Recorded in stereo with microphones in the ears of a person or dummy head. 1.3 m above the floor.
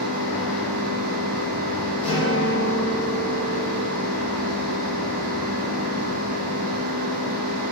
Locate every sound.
0.0 s a machine running: 70° left (ahead or behind), 1.6 m
2.0 s a guitar: 35° left (ahead or behind), 1.3 m